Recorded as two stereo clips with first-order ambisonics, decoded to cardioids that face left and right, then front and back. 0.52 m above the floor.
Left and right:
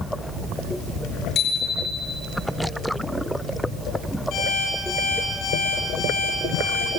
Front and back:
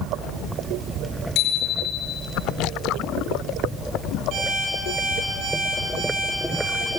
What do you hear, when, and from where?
1.4 s a bicycle bell: 40° left, 5 m
4.3 s an alarm clock: 135° left, 9 m